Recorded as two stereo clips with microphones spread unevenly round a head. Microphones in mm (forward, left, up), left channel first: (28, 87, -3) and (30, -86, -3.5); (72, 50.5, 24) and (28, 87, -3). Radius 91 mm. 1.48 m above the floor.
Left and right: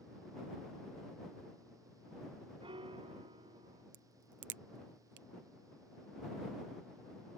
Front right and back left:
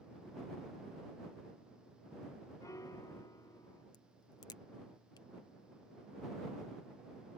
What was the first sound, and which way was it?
A piano, 30° right.